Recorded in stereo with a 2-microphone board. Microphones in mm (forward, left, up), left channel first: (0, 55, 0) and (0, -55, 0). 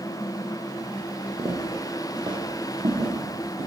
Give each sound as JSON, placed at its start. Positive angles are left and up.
{"t": 1.4, "sound": "footsteps", "side_deg": -25, "distance_m": 1.1}